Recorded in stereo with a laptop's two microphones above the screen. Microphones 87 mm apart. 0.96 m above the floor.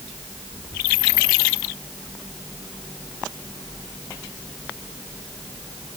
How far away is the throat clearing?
I don't hear throat clearing.